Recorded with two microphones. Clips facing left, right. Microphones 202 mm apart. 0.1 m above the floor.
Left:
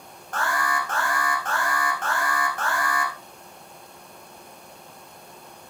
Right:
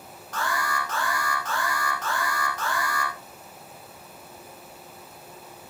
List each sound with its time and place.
0.3 s an alarm: 50° left (ahead or behind), 4.5 m